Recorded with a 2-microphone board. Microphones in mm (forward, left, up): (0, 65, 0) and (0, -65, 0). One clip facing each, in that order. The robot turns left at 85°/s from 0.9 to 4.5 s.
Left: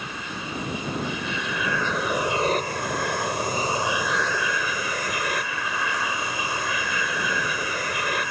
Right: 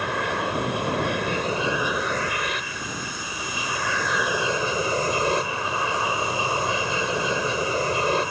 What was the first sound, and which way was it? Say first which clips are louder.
An aircraft: right 9 dB; 85° right.